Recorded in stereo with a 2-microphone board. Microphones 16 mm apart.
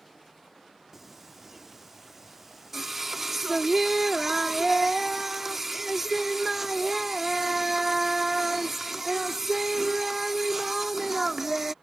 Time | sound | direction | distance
0.9 | singing | 20° right (ahead or behind) | ?